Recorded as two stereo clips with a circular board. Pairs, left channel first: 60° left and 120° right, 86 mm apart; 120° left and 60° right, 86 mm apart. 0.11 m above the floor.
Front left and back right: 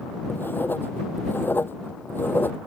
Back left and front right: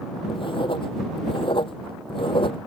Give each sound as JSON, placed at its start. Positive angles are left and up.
{"t": 0.3, "sound": "writing", "azimuth_deg": 125}